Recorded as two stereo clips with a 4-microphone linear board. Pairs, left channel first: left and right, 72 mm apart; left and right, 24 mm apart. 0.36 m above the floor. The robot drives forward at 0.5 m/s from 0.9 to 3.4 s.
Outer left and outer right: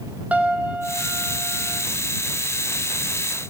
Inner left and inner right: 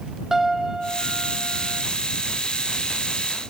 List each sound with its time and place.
0.3 s a piano: 20° right (ahead or behind), 3 m; by 1.8 s 25° right (ahead or behind), 2.5 m